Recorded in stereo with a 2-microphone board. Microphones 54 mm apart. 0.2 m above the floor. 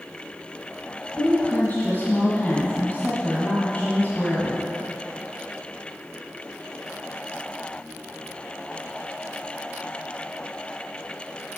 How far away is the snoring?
No snoring in this recording.